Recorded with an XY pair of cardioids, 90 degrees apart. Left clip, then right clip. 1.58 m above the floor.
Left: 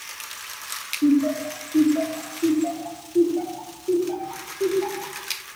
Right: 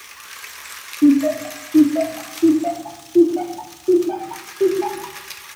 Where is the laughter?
55° right, 4 m.